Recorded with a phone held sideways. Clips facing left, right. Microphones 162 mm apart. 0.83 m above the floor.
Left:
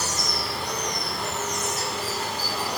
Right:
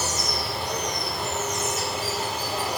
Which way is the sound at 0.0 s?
Centre (ahead or behind).